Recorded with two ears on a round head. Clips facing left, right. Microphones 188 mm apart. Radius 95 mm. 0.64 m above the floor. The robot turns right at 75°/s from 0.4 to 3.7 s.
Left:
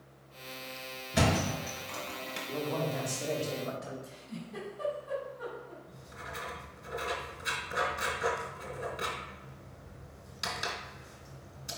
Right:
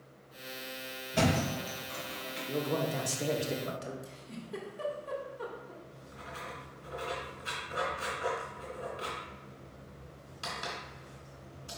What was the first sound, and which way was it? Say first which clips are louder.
A thud: even; 20° left (ahead or behind).